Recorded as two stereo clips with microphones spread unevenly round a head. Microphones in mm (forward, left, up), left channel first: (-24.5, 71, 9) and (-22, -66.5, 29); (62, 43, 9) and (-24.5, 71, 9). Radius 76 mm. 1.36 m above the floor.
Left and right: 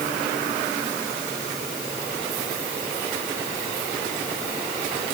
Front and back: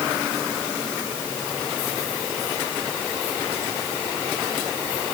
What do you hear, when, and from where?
Only background noise.